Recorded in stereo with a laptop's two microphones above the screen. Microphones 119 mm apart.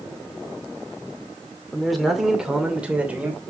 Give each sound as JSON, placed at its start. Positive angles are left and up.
{"t": 1.7, "sound": "a man speaking", "side_deg": 5, "distance_m": 2.5}